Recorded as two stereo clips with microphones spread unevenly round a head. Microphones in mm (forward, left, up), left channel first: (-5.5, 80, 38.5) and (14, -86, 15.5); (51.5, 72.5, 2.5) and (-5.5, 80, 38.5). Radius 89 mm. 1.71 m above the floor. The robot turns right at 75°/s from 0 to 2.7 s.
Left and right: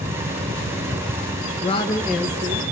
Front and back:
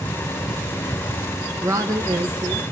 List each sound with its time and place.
1.6 s a woman speaking: 145° left, 1.9 m; by 2.7 s 130° right, 1.9 m